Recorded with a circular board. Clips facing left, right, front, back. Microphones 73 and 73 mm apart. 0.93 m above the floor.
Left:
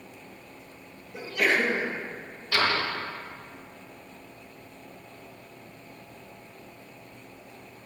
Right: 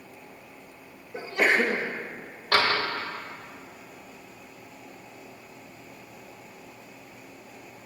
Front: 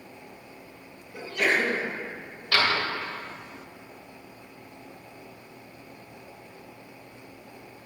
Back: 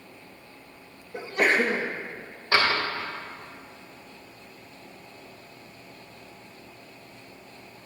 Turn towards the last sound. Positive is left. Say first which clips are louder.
# right 2 dB, back 1 dB
turn(degrees=-120)